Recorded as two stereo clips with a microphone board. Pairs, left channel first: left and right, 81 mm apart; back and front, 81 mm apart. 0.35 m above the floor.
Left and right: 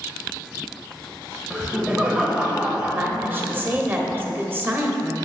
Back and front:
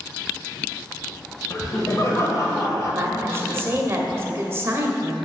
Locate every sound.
1.5 s laughter: 160° right, 1.3 m
3.0 s a woman speaking: 40° right, 1.0 m